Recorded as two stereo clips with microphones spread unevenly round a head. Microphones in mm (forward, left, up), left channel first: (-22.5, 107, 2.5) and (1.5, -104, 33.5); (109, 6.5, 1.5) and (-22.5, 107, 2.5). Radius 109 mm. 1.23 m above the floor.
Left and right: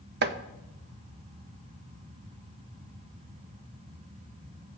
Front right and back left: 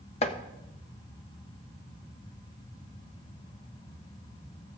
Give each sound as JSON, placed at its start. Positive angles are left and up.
{"t": 0.2, "sound": "chopping", "azimuth_deg": -85, "distance_m": 0.5}